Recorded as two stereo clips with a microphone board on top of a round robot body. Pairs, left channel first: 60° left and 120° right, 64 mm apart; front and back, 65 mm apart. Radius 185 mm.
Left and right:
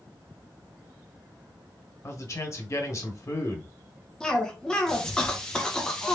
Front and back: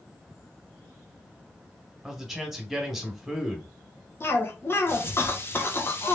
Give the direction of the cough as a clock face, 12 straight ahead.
12 o'clock.